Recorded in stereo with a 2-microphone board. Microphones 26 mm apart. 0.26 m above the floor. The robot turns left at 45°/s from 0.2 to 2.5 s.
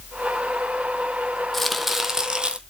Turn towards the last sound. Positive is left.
turn(degrees=-35)